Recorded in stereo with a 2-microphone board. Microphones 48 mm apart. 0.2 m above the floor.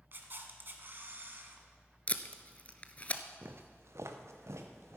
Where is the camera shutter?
50° right (ahead or behind), 1.3 m.